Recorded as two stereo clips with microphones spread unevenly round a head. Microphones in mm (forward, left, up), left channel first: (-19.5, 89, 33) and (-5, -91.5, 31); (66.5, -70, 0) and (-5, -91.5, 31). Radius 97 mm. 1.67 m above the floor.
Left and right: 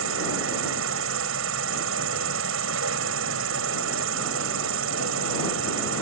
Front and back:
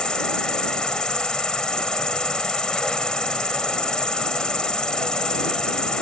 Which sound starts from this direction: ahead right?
An insect, at 0.0 s.